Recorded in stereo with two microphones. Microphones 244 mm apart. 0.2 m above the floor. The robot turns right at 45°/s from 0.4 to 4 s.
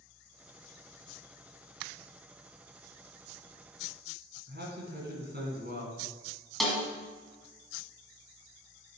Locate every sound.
4.5 s a man speaking: 45° right (ahead or behind), 1.9 m
6.6 s a snare drum: centre (ahead or behind), 1.4 m